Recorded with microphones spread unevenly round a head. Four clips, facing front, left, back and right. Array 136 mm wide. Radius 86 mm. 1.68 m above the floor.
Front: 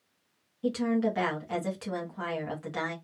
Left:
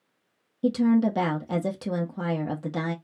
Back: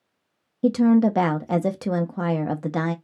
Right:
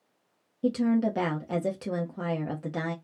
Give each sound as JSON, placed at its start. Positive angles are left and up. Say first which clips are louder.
{"t": 0.6, "sound": "a woman speaking", "louder": "left 3 dB, back 10 dB", "azimuth_deg": 165, "distance_m": 1.1}